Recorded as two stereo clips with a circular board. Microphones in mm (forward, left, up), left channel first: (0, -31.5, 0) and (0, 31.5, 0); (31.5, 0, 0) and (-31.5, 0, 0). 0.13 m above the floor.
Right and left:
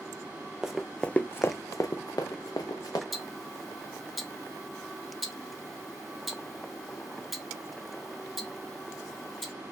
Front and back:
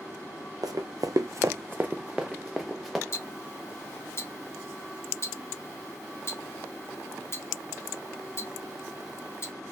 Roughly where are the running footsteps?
Behind.